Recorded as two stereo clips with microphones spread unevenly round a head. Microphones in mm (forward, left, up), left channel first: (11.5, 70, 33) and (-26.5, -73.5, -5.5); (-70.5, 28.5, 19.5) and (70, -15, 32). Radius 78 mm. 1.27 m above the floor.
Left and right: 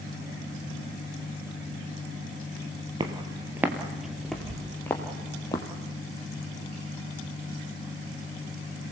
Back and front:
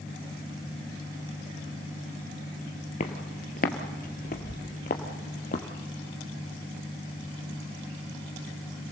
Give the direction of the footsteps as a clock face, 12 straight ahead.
6 o'clock.